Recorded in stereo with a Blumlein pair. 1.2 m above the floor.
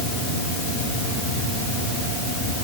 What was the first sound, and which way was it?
Only background noise.